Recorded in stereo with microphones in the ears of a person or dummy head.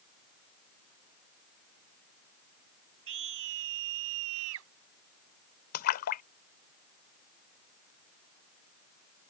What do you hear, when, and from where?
3.1 s a scream: 70° right (ahead or behind); by 4.7 s 75° right (ahead or behind)
5.7 s a splash: 50° left (ahead or behind)